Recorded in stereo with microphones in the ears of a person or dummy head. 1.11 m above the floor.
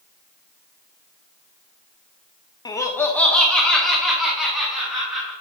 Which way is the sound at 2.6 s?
20° left (ahead or behind).